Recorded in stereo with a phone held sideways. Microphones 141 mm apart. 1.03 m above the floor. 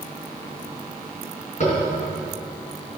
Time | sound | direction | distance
1.6 | tapping | 50° left (ahead or behind) | 4 m